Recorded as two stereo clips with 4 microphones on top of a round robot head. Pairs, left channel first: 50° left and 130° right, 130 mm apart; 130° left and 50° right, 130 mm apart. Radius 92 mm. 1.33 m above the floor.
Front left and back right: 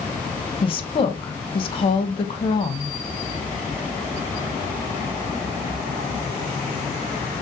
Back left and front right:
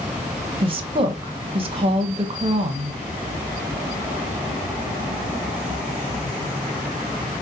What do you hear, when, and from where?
0.6 s a woman speaking: straight ahead, 0.7 m